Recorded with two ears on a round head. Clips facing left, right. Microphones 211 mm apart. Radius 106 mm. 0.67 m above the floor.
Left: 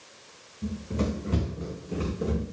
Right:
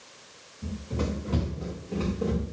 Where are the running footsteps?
30° left (ahead or behind), 4 m; by 2.4 s 15° left (ahead or behind), 4 m.